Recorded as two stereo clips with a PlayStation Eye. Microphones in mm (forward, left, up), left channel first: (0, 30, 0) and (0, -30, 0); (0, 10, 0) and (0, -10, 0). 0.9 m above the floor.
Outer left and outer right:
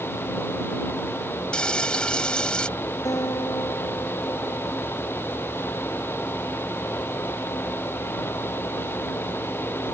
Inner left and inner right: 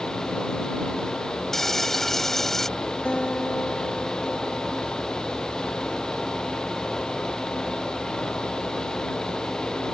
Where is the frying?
15° left (ahead or behind).